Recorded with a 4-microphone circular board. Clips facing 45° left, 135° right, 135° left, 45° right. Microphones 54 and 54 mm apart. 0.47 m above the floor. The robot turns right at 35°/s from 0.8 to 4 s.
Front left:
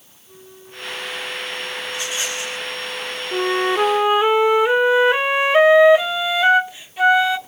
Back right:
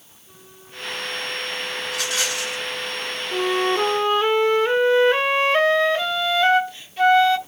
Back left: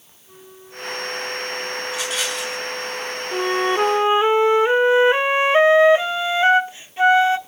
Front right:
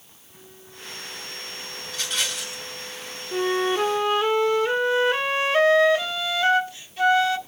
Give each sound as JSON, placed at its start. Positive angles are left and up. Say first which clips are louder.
{"t": 0.2, "sound": "a flute", "louder": "front left 4 dB, back left 5 dB", "azimuth_deg": 160, "distance_m": 6.5}
{"t": 1.9, "sound": "a rattle", "louder": "back right 2 dB, back left 1 dB", "azimuth_deg": -150, "distance_m": 5.0}
{"t": 3.3, "sound": "a flute", "louder": "front left 2 dB, back left 2 dB", "azimuth_deg": 85, "distance_m": 0.8}